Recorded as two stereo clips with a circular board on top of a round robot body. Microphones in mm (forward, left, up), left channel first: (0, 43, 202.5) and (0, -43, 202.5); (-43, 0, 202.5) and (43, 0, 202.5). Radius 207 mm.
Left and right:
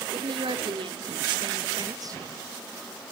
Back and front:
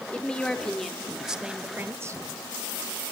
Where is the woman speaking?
100° right, 3 m; by 2.2 s 45° right, 1.6 m.